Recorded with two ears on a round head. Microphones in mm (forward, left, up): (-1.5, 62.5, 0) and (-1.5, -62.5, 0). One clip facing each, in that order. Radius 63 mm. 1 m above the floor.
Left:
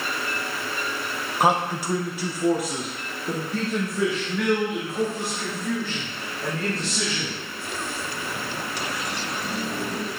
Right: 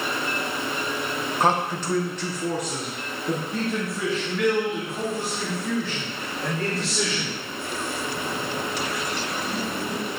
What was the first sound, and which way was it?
A man speaking, 10° left (ahead or behind).